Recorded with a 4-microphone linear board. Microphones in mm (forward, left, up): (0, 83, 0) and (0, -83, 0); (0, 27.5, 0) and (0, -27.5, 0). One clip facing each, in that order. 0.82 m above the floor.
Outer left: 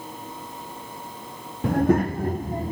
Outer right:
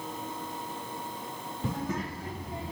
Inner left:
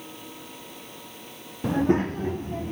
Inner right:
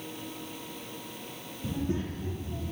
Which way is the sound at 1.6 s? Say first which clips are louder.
Outer left 14 dB, inner left 10 dB; 75° left (ahead or behind).